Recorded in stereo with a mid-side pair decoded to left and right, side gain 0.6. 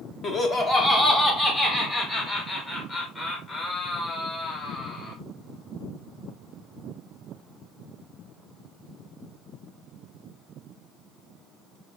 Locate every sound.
0.2 s laughter: 40° left, 1.0 m